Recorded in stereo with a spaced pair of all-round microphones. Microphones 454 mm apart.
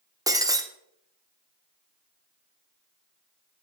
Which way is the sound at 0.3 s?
10° right (ahead or behind).